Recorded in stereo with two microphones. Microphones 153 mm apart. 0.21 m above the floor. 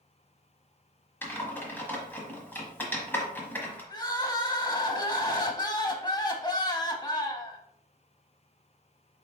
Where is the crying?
25° left (ahead or behind), 0.7 m.